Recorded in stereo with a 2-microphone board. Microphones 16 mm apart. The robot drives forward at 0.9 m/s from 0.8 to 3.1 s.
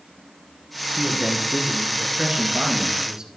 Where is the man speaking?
65° right (ahead or behind), 2.5 m; by 3.3 s 45° right (ahead or behind), 3 m.